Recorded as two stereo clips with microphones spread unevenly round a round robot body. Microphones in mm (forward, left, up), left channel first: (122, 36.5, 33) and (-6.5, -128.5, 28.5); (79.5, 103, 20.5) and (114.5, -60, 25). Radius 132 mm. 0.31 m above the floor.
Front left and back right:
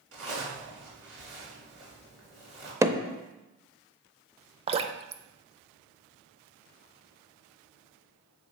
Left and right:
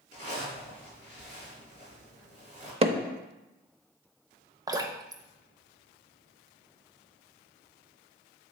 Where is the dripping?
120° right, 0.5 m.